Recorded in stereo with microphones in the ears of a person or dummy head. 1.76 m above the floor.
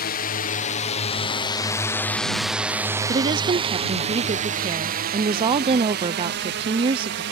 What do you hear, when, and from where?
0.0 s a drone: 45° left (ahead or behind); by 7.3 s 65° right (ahead or behind)
3.1 s a woman speaking: 30° right (ahead or behind)